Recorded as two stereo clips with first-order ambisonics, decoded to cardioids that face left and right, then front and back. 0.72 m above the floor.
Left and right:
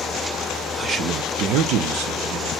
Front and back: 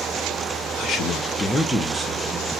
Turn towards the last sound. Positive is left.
turn(degrees=-100)